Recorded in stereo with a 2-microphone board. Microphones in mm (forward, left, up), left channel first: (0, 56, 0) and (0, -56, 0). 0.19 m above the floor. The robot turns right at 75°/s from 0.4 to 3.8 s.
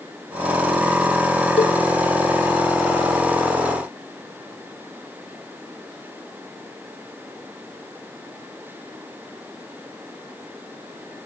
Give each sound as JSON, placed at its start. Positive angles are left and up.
{"t": 1.6, "sound": "a cowbell", "side_deg": 75, "distance_m": 0.5}